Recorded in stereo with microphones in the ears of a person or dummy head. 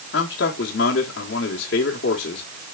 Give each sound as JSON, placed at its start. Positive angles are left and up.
{"t": 0.1, "sound": "a man speaking", "side_deg": 65, "distance_m": 1.6}